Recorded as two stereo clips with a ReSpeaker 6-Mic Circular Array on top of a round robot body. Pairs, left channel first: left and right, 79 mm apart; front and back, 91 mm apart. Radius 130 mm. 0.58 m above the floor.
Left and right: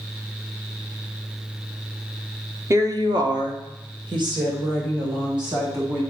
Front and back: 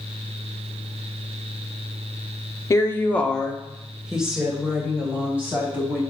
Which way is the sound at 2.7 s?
50° right.